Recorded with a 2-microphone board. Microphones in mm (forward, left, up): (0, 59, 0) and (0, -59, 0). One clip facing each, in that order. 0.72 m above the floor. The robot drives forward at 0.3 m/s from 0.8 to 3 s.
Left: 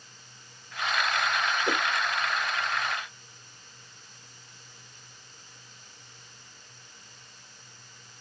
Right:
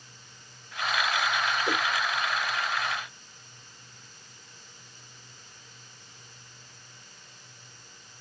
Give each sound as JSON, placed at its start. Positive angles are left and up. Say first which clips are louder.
{"t": 1.7, "sound": "a whoosh", "louder": "left 2 dB", "side_deg": 20, "distance_m": 1.5}